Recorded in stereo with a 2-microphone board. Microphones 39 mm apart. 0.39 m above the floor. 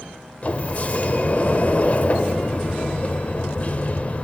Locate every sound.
0.4 s a sliding door: 40° left (ahead or behind), 0.5 m